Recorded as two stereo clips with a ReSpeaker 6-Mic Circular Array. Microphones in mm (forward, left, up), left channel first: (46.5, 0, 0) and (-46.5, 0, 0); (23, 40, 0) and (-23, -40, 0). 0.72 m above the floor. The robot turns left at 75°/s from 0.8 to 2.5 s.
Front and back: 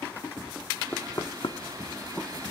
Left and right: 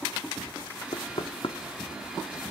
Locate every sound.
0.9 s knocking: 70° left, 0.6 m; by 1.6 s 20° left, 0.6 m